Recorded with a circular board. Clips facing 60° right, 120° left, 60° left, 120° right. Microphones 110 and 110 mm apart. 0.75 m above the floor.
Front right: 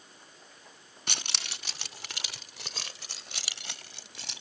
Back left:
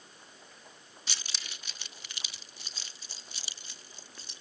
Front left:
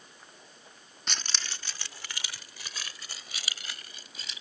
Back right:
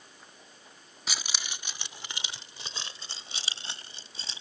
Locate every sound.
1.1 s keys jangling: 35° right; by 4.4 s 60° right